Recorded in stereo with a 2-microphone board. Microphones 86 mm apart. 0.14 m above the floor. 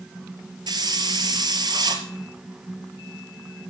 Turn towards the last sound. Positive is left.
turn(degrees=-60)  # may be behind; listen again after turning